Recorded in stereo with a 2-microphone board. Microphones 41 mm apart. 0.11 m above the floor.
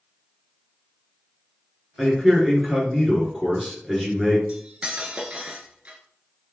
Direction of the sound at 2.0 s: 10° right (ahead or behind).